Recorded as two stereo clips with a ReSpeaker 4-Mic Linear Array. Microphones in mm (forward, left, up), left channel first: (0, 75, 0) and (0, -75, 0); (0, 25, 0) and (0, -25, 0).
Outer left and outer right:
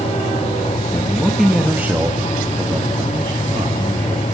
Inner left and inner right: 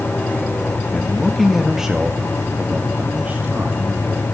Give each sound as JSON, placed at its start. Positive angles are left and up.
{"t": 0.9, "sound": "a man speaking", "side_deg": 10, "distance_m": 1.5}